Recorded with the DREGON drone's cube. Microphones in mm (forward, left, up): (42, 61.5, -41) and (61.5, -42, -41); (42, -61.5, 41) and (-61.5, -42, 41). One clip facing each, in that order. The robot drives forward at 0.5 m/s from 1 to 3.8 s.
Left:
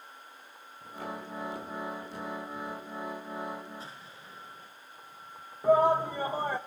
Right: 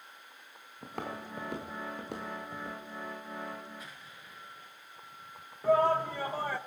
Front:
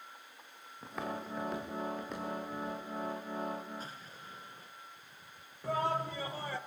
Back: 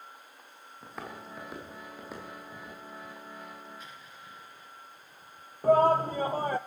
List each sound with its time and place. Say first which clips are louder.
0.8 s footsteps: even, front 3 dB; 100° right, 4.5 m; by 2.8 s 105° right, 7 m
3.8 s an explosion: left 3 dB, front 1 dB; 40° left, 2 m
5.6 s a shout: left 3 dB, back 12 dB; 165° left, 0.5 m